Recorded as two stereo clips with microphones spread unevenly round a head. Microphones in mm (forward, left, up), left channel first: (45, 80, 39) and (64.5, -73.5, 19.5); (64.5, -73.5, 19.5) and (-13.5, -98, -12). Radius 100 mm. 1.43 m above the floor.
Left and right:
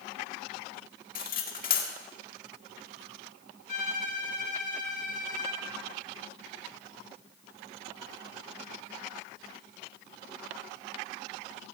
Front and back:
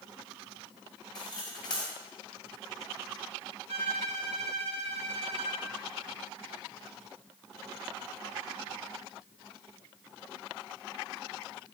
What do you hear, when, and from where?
1.1 s cutlery clinking: 70° left, 2 m
3.7 s a violin: 155° left, 1.5 m